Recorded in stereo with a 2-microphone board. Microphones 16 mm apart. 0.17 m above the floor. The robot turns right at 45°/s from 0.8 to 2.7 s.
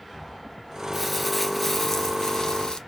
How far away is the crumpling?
About 1.0 m.